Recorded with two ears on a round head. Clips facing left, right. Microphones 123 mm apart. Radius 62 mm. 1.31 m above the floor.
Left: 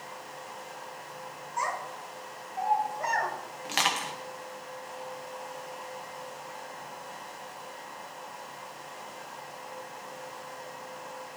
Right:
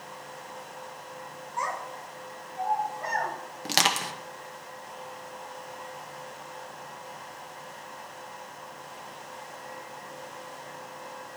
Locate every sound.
1.6 s a child speaking: 40° left (ahead or behind), 2 m; by 3.3 s 80° left, 1.5 m
3.6 s crushing: 40° right (ahead or behind), 0.8 m